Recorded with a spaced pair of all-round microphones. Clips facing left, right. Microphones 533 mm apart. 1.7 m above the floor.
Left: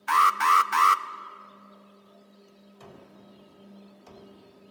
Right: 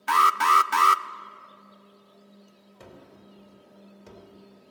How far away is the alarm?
About 0.6 m.